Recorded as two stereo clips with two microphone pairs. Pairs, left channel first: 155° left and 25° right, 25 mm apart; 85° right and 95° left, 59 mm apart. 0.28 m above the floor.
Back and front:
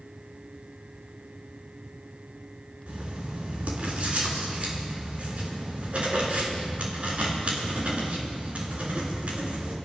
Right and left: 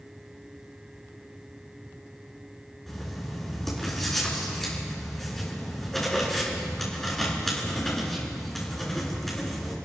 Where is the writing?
Straight ahead, 4 m.